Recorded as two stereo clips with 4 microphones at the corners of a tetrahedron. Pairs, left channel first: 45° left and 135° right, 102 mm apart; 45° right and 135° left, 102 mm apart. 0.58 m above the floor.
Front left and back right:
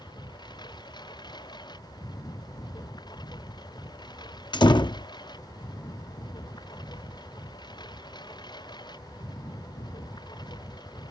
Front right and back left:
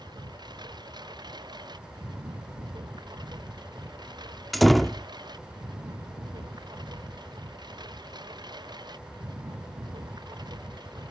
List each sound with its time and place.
0.0 s a lawn mower: 90° left
4.5 s a door slam: 45° left